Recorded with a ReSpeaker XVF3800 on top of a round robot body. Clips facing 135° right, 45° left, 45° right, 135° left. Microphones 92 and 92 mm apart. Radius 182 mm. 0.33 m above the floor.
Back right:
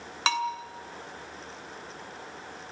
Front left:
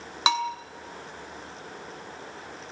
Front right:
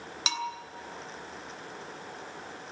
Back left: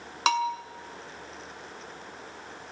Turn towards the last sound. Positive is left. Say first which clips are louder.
# front left 2 dB, back left 9 dB
turn(degrees=115)